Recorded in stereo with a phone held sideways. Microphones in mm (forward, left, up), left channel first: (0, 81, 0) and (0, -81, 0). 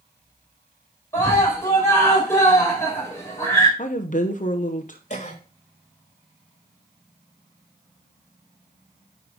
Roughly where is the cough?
Left.